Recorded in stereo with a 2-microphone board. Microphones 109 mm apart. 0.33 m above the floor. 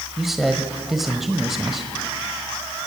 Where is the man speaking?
5° right (ahead or behind), 1.3 m.